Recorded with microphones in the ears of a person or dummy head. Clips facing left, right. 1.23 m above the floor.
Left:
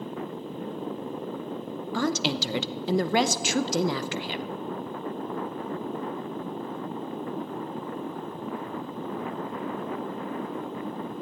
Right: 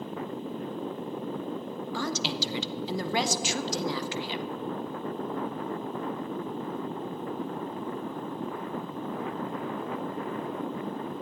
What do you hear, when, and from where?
1.9 s a woman speaking: 55° left (ahead or behind), 0.7 m